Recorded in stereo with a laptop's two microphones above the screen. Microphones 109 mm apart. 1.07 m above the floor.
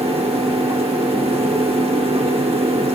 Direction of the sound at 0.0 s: 60° right (ahead or behind).